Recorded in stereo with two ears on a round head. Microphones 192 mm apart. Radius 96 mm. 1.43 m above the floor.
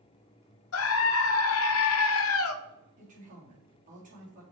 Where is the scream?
70° left (ahead or behind), 0.7 m.